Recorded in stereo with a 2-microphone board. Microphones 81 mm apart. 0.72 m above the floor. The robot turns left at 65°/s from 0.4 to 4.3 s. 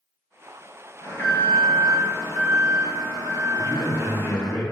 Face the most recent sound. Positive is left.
turn(degrees=-165)